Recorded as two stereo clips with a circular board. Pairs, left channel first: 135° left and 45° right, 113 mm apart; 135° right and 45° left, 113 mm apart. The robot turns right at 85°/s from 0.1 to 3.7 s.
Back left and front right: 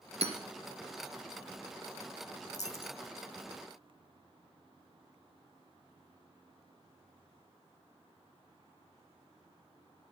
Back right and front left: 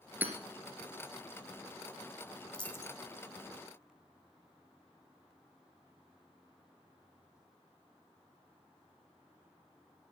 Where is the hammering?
30° right, 2.0 m; by 0.3 s 15° right, 2.0 m.